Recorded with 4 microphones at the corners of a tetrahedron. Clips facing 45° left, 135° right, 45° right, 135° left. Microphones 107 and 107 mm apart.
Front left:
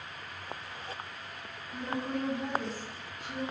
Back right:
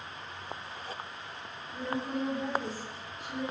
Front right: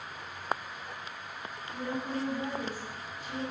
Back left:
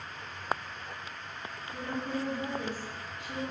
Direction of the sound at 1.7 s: 70° left.